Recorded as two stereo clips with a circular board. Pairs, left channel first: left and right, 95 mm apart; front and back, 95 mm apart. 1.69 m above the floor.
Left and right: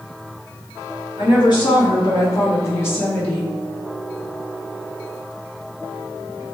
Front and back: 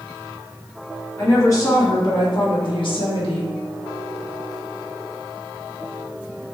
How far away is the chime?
I don't hear a chime.